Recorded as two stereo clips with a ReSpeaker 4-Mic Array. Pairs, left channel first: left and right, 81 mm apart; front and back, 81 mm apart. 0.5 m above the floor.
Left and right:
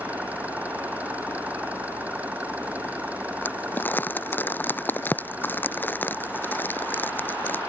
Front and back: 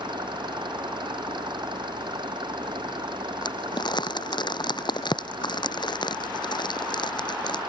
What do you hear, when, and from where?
0.0 s an engine running: 160° right
3.4 s crumpling: 25° left